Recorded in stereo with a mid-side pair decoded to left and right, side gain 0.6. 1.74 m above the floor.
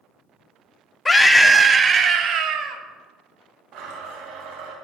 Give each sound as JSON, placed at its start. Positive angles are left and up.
{"t": 1.1, "sound": "a scream", "azimuth_deg": 20, "distance_m": 0.9}
{"t": 3.7, "sound": "a blender", "azimuth_deg": -60, "distance_m": 2.0}